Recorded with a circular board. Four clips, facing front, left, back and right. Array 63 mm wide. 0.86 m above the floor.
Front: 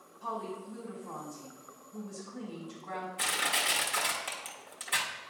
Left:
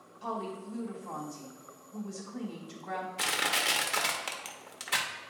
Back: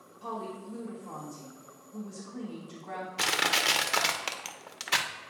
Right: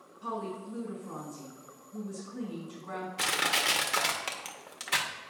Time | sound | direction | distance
0.2 | a woman speaking | 105° left | 2.5 m
3.2 | crushing | 175° right | 0.6 m